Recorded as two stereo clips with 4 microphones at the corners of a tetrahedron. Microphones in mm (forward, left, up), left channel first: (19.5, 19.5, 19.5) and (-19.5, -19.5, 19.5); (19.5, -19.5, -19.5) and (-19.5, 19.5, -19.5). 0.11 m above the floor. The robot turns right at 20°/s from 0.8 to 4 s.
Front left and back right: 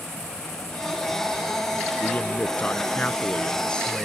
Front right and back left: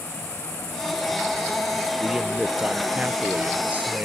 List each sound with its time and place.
2.0 s a man speaking: 70° left; by 4.0 s 110° left